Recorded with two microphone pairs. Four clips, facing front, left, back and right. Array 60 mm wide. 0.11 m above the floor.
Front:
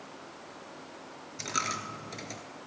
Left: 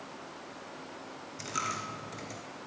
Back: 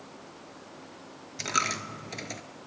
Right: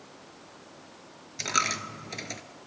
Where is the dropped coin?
130° right, 0.8 m.